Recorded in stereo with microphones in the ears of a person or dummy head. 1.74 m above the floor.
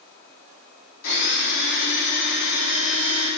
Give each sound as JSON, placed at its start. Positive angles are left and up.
{"t": 1.0, "sound": "a blender", "side_deg": 70, "distance_m": 3.0}